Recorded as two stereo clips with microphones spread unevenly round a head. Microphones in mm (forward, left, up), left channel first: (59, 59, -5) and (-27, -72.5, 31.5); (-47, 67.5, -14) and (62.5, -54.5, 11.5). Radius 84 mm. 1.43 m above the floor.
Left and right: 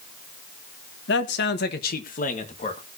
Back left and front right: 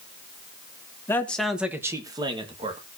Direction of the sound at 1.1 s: 55° left.